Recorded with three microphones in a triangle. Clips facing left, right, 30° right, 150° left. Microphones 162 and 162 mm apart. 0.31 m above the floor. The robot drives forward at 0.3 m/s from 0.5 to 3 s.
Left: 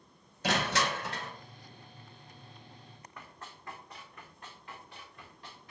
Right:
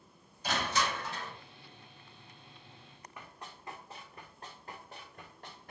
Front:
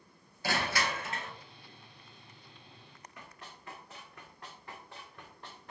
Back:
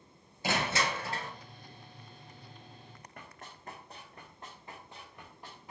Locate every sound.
0.4 s crushing: 80° left, 0.8 m; by 1.3 s 100° left, 0.8 m
3.2 s running footsteps: 175° right, 1.4 m; by 5.7 s 130° right, 2.5 m